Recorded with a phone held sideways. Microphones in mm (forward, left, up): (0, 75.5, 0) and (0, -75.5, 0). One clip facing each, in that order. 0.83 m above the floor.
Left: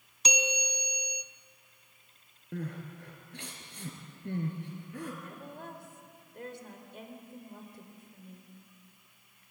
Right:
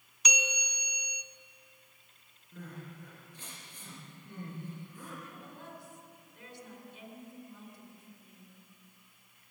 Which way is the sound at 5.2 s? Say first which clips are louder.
Left 4 dB; 55° left (ahead or behind).